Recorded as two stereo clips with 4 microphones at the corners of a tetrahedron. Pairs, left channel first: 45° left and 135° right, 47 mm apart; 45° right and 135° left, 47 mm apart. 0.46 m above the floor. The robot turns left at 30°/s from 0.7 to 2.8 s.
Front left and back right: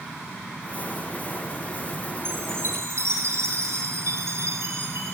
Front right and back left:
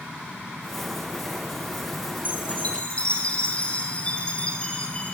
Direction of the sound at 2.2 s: 95° right.